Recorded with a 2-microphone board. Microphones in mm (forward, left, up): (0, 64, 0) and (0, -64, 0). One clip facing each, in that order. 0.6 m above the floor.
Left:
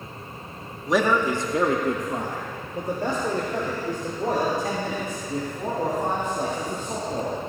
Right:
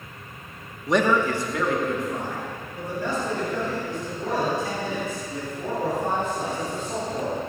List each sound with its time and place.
0.9 s a man speaking: centre (ahead or behind), 0.8 m; by 7.3 s 55° left (ahead or behind), 5 m